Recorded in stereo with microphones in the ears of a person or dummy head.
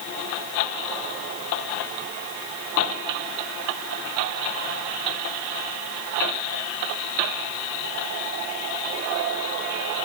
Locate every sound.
Only background noise.